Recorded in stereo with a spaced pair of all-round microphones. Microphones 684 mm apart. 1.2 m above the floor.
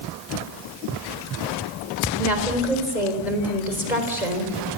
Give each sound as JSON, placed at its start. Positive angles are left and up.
{"t": 2.2, "sound": "a woman speaking", "side_deg": 85, "distance_m": 4.0}